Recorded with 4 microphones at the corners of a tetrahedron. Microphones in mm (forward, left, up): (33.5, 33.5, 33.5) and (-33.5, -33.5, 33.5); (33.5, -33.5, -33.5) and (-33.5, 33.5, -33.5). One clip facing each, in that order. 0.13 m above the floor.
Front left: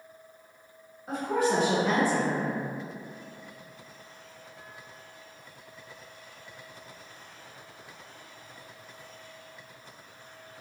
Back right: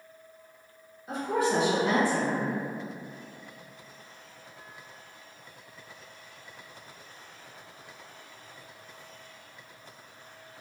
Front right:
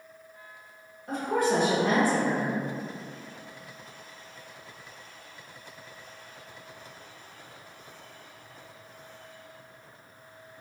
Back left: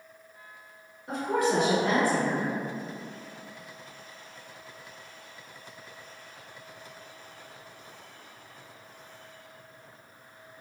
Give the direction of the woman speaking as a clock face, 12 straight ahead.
10 o'clock.